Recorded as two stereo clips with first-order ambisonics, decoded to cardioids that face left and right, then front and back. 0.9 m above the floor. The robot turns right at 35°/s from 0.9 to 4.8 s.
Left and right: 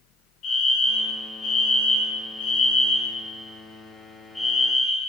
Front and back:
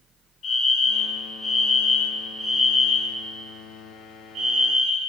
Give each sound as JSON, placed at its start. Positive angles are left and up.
{"t": 0.4, "sound": "a fire alarm", "azimuth_deg": 50, "distance_m": 2.5}